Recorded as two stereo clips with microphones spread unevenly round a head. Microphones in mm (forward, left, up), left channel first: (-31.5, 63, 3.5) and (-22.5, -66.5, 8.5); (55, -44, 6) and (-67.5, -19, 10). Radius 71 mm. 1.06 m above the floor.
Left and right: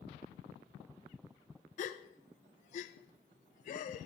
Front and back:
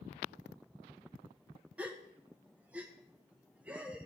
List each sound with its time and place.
1.8 s a gasp: 90° left, 0.6 m